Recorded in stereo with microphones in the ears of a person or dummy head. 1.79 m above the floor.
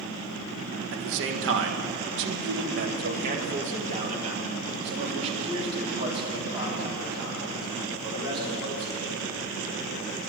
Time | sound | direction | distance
0.9 | a man speaking | 60° right (ahead or behind) | 1.5 m